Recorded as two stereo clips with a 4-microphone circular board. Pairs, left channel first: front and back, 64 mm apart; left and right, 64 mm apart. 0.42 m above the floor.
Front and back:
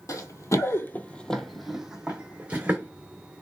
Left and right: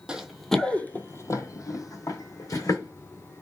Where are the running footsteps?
15° right, 0.7 m; by 2.9 s 110° left, 1.5 m.